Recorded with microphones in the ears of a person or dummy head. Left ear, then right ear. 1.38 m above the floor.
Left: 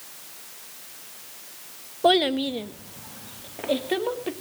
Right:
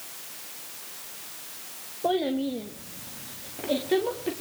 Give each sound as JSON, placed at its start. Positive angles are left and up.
{"t": 2.0, "sound": "a child speaking", "side_deg": 60, "distance_m": 1.0}